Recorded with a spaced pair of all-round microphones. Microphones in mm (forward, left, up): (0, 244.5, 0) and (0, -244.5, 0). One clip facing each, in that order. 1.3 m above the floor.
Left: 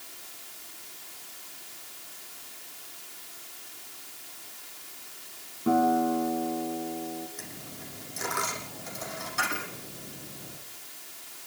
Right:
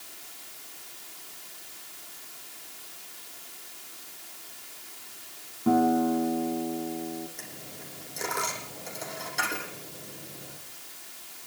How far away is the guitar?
About 3 m.